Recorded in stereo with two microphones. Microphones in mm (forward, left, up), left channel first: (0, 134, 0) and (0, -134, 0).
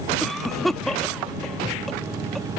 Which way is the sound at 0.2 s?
Centre (ahead or behind).